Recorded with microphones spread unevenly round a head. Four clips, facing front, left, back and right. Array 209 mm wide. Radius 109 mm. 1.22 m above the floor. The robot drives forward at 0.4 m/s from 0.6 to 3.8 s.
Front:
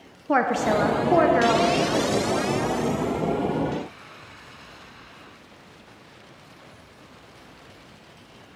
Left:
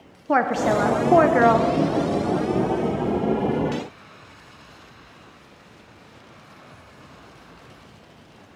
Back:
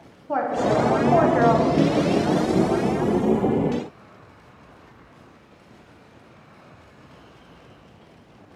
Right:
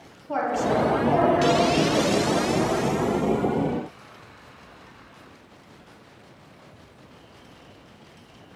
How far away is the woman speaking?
About 0.7 m.